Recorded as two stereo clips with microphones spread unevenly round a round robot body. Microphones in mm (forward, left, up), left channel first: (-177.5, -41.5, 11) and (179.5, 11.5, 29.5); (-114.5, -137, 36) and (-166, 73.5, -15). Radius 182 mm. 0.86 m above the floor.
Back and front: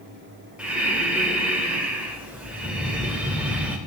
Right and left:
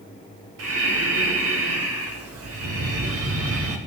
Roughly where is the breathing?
Left.